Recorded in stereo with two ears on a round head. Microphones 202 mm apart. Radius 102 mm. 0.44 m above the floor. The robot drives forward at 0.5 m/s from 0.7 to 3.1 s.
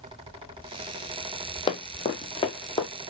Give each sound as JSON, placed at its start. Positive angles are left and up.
{"t": 1.7, "sound": "running footsteps", "side_deg": 25, "distance_m": 0.9}